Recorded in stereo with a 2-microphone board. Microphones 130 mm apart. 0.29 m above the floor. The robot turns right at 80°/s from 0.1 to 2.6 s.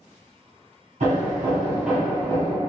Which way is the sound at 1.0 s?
80° right.